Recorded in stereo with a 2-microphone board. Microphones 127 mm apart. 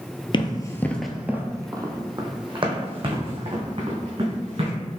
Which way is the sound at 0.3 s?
40° left (ahead or behind).